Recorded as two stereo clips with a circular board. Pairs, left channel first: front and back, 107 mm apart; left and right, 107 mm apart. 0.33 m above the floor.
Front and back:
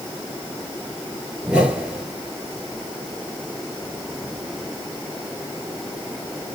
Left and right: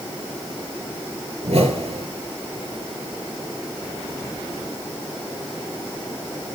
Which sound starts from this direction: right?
A whoosh, at 1.4 s.